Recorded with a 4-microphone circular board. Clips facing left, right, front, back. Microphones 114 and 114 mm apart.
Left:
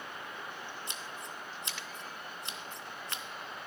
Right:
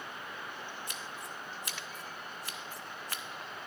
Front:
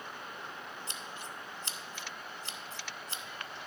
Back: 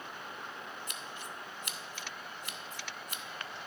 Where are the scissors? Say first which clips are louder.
Even, even; 40° left, 0.8 m.